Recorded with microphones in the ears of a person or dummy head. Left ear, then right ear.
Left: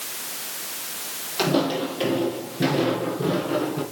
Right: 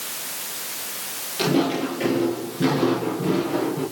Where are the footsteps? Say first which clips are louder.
Right 1 dB; 35° left (ahead or behind), 9.5 m; by 3.8 s 25° left (ahead or behind), 9 m.